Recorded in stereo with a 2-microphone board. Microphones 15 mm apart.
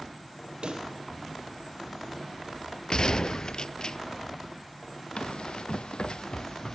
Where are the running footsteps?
80° left, 1.1 m; by 6.8 s 45° left (ahead or behind), 1.1 m.